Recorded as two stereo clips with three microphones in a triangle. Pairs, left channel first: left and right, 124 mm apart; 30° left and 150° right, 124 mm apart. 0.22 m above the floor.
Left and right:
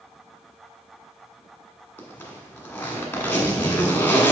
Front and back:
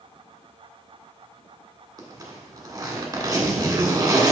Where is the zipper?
160° left, 1.4 m.